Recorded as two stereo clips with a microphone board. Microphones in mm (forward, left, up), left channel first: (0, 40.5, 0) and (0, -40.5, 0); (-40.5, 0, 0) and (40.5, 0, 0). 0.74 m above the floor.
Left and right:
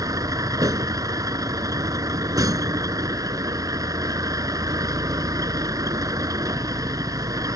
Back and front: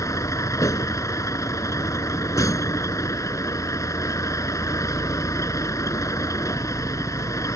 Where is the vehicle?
130° right.